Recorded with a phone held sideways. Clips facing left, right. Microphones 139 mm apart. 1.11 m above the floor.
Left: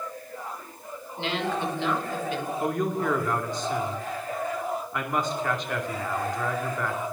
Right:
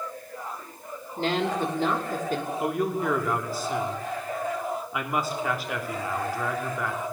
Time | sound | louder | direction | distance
1.2 | a woman speaking | right 3 dB | 45° right (ahead or behind) | 4 m
2.6 | a man speaking | left 1 dB | 5° right (ahead or behind) | 2.5 m